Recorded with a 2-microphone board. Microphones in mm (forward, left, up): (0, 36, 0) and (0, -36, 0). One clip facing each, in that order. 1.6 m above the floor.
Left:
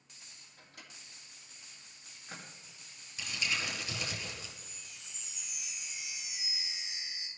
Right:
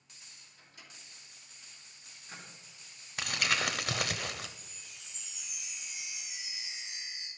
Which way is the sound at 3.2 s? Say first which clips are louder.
Right 5 dB; 65° right (ahead or behind).